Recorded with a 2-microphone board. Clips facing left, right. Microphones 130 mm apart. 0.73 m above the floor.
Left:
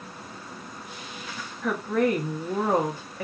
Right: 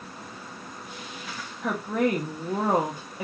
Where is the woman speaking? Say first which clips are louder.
Left 1 dB; 15° right (ahead or behind), 0.8 m.